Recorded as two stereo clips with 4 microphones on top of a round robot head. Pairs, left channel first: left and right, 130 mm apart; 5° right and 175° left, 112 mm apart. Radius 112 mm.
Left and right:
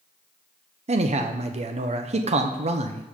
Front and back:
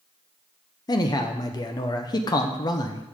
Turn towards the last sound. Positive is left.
turn(degrees=-60)